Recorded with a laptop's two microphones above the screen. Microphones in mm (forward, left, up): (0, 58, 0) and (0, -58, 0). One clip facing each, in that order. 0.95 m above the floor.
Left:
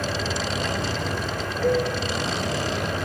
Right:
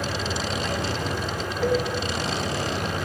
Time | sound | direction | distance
0.0 | a fan | 15° right (ahead or behind) | 1.6 m
1.6 | a cowbell | 80° right | 3.5 m